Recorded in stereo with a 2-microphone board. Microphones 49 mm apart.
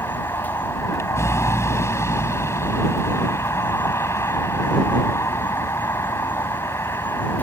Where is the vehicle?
75° left (ahead or behind).